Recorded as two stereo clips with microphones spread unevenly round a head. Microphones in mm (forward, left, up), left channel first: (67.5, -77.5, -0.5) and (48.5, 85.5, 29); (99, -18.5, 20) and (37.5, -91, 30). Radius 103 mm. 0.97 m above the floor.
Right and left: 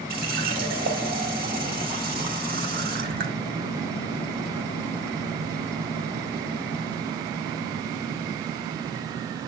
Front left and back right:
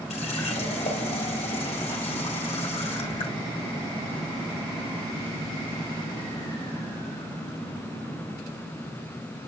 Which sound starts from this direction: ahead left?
A running tap, at 0.1 s.